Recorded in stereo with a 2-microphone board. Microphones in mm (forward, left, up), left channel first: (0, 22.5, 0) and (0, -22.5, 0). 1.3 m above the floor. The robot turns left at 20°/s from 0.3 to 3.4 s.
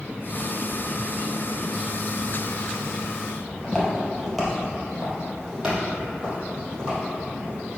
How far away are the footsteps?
About 1.9 m.